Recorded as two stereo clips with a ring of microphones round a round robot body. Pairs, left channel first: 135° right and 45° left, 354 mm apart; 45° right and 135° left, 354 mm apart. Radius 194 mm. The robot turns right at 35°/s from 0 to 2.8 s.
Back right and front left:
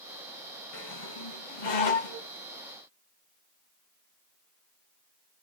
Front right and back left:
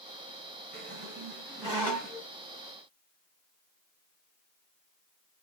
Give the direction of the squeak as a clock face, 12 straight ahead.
6 o'clock.